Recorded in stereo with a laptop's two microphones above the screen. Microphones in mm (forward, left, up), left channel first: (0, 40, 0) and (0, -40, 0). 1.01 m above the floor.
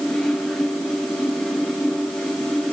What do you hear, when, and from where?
0.0 s a fan: 5° left (ahead or behind), 1.8 m